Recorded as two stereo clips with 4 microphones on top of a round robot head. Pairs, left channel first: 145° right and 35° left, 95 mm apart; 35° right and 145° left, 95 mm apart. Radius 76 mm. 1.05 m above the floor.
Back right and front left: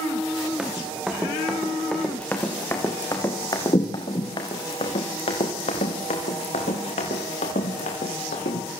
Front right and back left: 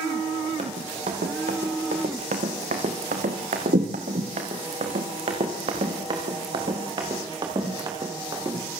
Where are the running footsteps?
120° left, 5 m; by 8.7 s 155° right, 7 m.